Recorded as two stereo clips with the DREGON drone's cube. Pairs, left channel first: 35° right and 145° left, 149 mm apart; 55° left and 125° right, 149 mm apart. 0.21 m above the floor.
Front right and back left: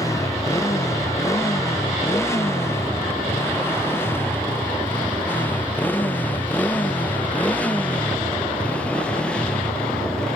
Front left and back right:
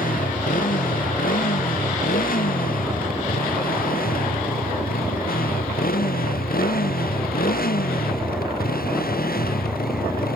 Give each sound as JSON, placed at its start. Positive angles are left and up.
{"t": 0.0, "sound": "a motorcycle", "azimuth_deg": 35}